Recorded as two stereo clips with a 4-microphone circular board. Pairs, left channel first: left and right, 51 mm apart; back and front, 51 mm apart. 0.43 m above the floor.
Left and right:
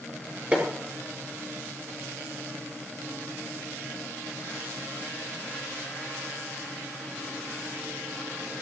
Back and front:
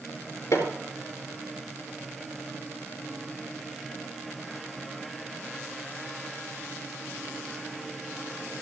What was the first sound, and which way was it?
Hammering, 160° right.